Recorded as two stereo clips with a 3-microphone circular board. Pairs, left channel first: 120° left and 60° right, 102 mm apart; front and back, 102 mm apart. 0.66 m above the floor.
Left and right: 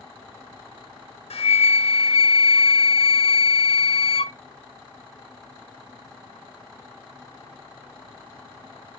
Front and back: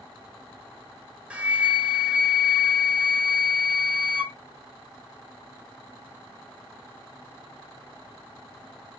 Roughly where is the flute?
Left.